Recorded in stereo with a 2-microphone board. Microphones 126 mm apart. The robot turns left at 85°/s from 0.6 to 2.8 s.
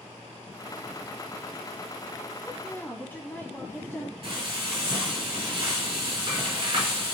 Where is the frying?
40° right (ahead or behind), 1.4 m.